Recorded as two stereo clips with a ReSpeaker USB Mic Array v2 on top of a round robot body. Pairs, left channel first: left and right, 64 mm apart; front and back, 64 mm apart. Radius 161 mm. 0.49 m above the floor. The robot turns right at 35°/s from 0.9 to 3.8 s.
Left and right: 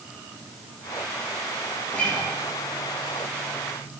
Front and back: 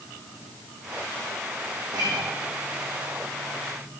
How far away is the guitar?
About 5 m.